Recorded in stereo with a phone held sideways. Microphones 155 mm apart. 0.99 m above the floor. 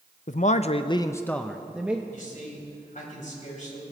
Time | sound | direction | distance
0.3 | a man speaking | 55° left (ahead or behind) | 0.7 m
2.1 | a man speaking | 55° left (ahead or behind) | 4.5 m